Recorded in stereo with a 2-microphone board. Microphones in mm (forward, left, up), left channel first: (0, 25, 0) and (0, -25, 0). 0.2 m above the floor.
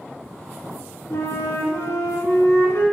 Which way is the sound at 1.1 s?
65° left (ahead or behind).